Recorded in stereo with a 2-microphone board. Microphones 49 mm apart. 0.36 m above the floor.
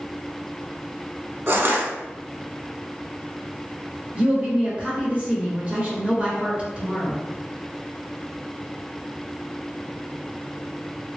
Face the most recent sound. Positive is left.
turn(degrees=-25)  # may be behind; listen again after turning